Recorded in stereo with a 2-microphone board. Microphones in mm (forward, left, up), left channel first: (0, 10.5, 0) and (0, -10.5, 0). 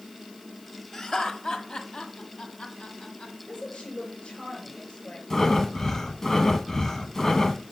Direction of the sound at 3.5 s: 75° left (ahead or behind).